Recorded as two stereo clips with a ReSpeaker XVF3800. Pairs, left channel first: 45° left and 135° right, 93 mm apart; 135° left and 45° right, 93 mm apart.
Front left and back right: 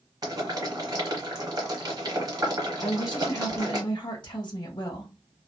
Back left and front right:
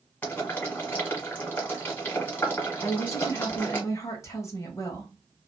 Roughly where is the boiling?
Behind.